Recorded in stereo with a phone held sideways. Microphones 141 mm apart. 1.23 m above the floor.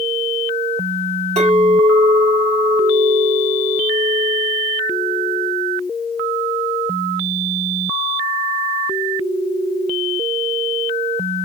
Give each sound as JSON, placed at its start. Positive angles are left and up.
{"t": 1.4, "sound": "a clink", "side_deg": -50, "distance_m": 2.0}